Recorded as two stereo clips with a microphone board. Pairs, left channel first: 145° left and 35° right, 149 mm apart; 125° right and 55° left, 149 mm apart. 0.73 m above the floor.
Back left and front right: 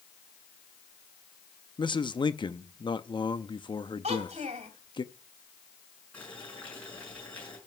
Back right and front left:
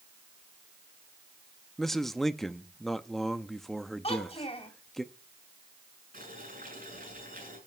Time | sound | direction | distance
1.8 | a man speaking | 150° left | 0.6 m
4.0 | a child speaking | 75° right | 2.5 m
6.1 | boiling | 65° left | 7.5 m